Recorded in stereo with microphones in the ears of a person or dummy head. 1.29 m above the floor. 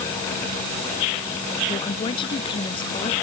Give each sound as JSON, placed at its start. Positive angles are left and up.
{"t": 1.7, "sound": "a woman speaking", "side_deg": 30}